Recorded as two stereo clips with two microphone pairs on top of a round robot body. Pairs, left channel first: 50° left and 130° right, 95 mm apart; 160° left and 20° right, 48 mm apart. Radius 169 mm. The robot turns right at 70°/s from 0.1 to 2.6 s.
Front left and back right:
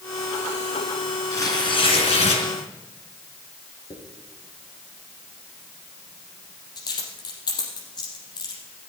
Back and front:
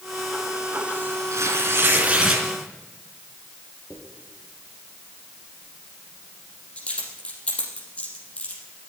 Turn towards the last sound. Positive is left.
turn(degrees=95)